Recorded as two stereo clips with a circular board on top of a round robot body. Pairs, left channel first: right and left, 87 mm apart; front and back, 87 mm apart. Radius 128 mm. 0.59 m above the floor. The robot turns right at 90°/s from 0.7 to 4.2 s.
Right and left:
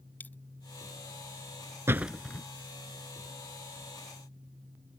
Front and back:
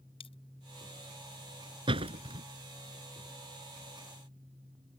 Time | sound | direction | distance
0.2 | a dropped coin | 20° right | ?
1.9 | a door slam | 155° left | ?